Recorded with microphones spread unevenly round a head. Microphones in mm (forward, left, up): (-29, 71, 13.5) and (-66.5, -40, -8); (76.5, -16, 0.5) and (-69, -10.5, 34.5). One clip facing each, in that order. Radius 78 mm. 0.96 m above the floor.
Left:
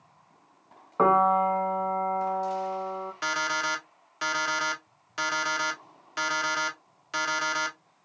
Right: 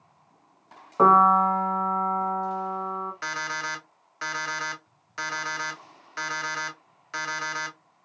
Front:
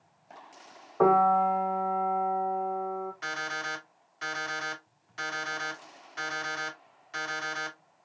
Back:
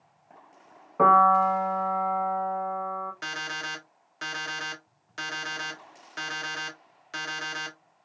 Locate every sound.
1.0 s a piano: 170° left, 1.4 m
3.2 s an alarm clock: 140° left, 1.1 m